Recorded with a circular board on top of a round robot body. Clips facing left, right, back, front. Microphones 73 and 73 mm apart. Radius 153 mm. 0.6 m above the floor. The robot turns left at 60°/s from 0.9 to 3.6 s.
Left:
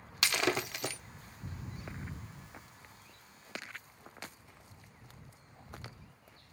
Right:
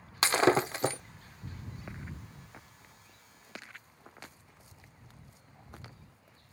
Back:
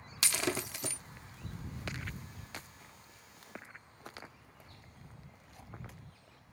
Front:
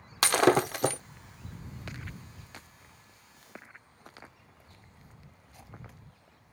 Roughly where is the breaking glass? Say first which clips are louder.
Right 7 dB, front 13 dB; ahead right.